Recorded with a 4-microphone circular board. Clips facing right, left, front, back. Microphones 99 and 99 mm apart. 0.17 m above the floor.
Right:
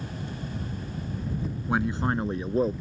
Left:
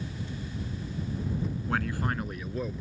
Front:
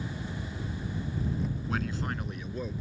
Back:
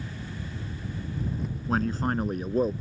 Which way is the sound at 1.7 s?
155° right.